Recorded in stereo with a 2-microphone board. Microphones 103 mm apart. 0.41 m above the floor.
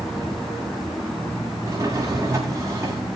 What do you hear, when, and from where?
1.6 s a drawer: 30° right (ahead or behind), 10 m